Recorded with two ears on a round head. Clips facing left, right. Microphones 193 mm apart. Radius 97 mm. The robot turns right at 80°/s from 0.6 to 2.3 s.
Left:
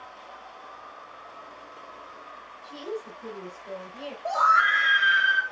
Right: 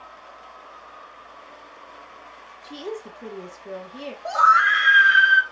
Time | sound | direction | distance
2.6 | a woman speaking | 65° right (ahead or behind) | 1.1 m
4.2 | a scream | 10° right (ahead or behind) | 0.5 m